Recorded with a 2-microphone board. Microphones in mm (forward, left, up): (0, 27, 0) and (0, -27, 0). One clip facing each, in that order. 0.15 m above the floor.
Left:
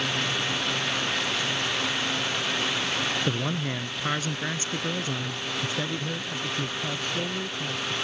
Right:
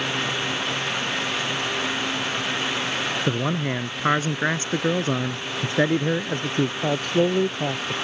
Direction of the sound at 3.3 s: 25° right (ahead or behind).